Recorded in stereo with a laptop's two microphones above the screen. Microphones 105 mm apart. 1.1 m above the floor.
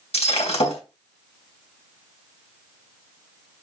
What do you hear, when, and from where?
0.1 s breaking glass: 80° left, 3 m